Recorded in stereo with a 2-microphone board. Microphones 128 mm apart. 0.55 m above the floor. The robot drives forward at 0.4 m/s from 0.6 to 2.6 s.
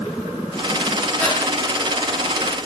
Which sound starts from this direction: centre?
Breathing, at 1.2 s.